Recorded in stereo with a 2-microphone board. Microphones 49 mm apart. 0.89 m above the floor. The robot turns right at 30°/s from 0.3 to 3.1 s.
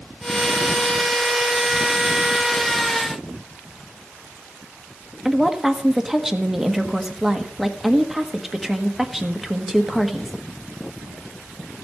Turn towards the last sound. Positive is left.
turn(degrees=-5)  # may be behind; listen again after turning